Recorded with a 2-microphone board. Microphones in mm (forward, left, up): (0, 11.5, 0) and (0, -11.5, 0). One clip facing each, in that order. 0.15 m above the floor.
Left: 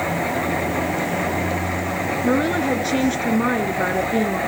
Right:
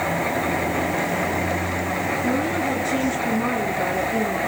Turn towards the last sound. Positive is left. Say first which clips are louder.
# left 6 dB
turn(degrees=55)  # may be behind; listen again after turning